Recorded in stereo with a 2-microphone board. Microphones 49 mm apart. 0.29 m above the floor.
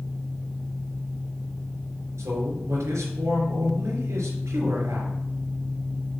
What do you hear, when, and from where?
2.2 s a man speaking: 75° right (ahead or behind), 4 m